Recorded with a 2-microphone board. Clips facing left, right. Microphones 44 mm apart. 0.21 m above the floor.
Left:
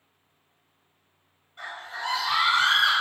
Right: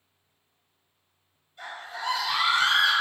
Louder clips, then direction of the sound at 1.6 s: Left 1 dB; 45° left (ahead or behind).